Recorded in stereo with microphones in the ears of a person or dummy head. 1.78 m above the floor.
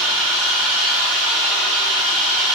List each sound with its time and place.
0.0 s an engine running: centre (ahead or behind), 1.1 m